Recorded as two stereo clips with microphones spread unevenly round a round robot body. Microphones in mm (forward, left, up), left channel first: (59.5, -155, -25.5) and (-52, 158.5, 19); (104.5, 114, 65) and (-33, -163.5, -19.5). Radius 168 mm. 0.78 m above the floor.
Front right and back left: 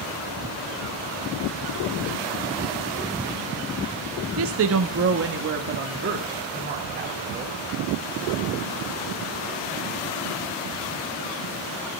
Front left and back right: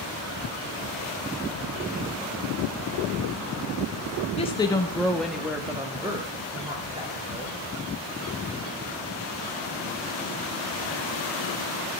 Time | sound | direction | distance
4.4 | a woman speaking | 145° left | 1.0 m